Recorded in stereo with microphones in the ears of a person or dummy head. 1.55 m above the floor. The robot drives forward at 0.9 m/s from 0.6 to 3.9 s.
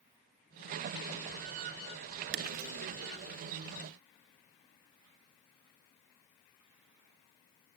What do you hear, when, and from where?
2.3 s breaking glass: 55° right (ahead or behind), 1.3 m; by 2.7 s 50° right (ahead or behind), 1.4 m